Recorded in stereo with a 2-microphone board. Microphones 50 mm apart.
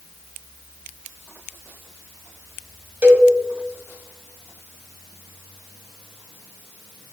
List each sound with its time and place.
3.0 s a cowbell: 30° right (ahead or behind), 1.0 m